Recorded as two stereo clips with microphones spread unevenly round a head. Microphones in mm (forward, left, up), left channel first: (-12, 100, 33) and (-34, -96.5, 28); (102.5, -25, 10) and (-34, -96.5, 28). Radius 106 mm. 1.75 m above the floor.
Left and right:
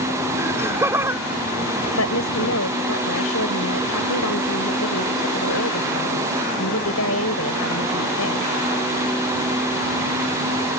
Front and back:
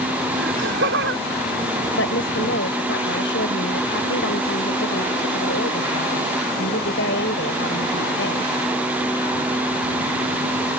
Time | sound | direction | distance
0.4 | laughter | 175° right | ?
1.9 | a woman speaking | 55° left | ?